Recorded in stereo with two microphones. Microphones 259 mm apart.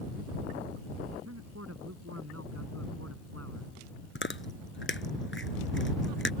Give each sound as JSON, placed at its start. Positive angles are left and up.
{"t": 1.2, "sound": "a man speaking", "side_deg": -70}
{"t": 4.2, "sound": "chewing", "side_deg": 50}